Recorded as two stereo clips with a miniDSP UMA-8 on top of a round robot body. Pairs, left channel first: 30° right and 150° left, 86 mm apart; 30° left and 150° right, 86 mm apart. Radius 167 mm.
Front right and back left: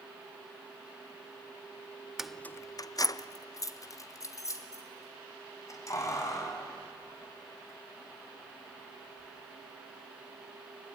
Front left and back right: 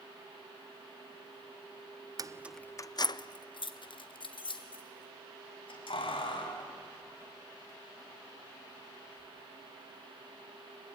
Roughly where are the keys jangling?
Behind right.